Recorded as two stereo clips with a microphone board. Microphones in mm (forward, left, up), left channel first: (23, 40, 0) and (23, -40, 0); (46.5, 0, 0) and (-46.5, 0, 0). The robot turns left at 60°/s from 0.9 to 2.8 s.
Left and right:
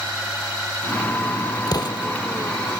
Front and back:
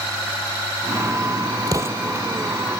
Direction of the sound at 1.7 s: 130° left.